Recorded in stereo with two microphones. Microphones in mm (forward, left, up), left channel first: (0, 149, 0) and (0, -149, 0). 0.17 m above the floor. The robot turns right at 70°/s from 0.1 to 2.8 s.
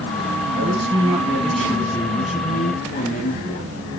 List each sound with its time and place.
0.5 s a man speaking: 25° right (ahead or behind), 1.2 m; by 3.7 s 25° left (ahead or behind), 1.2 m